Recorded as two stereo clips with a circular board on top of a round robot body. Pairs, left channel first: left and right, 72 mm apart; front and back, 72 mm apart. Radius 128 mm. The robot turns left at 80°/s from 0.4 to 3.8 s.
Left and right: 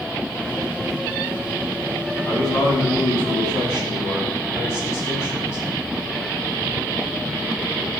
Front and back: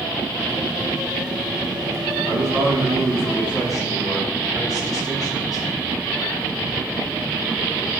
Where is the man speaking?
165° left, 6 m; by 5.7 s 40° left, 6 m.